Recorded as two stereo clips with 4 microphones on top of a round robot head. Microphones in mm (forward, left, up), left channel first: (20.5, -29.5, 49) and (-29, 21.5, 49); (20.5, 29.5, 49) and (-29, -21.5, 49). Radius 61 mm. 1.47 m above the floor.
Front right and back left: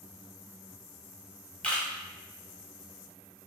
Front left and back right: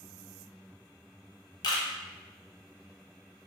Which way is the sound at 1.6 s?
30° left.